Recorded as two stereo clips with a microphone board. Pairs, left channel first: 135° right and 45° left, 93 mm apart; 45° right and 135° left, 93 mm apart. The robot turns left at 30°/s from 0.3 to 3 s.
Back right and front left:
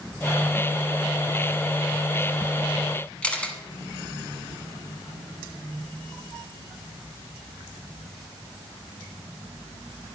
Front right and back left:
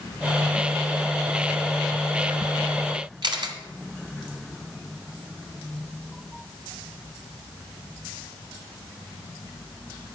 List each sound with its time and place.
3.2 s a camera shutter: 150° left, 1.3 m